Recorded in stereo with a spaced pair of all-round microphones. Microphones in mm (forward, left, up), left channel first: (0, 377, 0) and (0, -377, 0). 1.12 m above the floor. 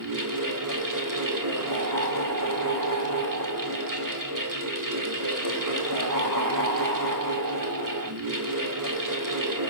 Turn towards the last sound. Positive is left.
turn(degrees=-25)  # may be behind; listen again after turning